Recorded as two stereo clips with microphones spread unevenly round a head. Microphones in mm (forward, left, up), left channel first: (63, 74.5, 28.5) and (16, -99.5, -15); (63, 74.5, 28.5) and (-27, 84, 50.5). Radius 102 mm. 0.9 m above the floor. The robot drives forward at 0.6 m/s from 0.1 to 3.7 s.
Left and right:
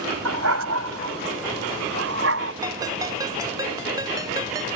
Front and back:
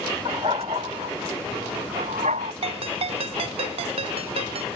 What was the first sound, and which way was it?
A dog barking, 125° right.